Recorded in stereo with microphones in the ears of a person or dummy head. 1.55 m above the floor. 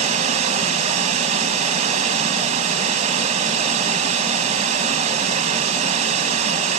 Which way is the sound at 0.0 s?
35° right (ahead or behind).